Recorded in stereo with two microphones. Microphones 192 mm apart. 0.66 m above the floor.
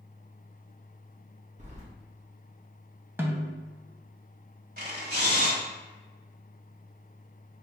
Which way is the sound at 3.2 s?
10° right (ahead or behind).